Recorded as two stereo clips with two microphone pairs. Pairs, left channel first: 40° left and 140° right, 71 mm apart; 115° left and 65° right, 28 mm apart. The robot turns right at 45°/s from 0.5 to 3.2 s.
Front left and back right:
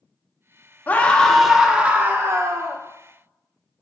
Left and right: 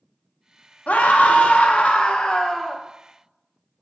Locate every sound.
0.9 s a scream: 100° left, 0.5 m; by 2.8 s 170° right, 0.5 m